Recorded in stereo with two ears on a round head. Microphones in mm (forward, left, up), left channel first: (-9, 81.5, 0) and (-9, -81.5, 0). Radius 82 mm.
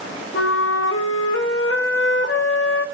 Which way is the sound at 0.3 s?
80° left.